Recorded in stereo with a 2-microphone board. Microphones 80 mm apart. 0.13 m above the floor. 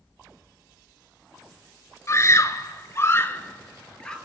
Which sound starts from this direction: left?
A scream, at 2.1 s.